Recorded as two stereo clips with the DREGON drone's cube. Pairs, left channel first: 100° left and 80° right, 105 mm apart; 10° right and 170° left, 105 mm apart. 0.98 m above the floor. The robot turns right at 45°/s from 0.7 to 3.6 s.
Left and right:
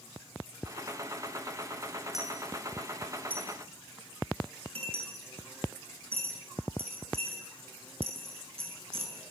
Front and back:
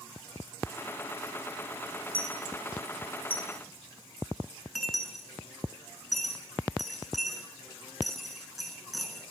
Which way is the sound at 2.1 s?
165° right.